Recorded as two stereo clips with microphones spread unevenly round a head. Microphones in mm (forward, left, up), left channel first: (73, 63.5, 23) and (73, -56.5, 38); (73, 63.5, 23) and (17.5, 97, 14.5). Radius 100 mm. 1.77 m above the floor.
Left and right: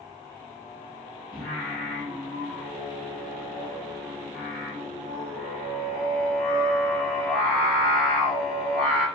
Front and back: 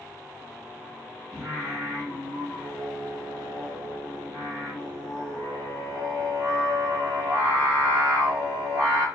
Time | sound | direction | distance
1.3 | singing | straight behind | 0.9 m